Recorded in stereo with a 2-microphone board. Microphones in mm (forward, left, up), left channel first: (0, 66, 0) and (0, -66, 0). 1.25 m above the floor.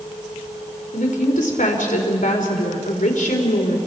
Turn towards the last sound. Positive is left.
turn(degrees=75)  # may be behind; listen again after turning